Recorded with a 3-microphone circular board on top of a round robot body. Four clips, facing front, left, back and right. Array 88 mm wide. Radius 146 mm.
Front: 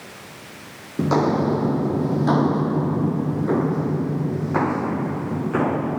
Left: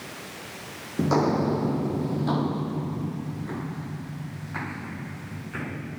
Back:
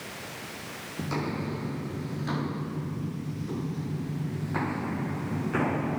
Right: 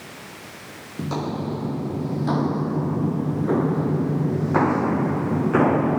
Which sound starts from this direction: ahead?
Footsteps, at 1.0 s.